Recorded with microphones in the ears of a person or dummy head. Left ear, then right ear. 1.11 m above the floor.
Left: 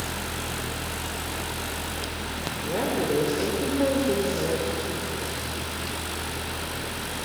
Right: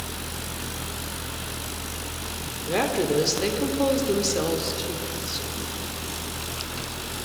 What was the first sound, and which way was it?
A woman speaking, 60° right (ahead or behind).